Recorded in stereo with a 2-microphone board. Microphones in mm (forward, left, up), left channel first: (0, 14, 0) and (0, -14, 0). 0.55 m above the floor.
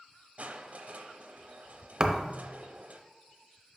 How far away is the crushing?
About 0.6 m.